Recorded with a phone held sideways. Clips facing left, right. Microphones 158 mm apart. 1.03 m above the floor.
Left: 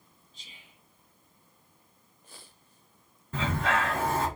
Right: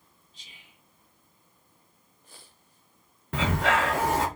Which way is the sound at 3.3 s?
85° right.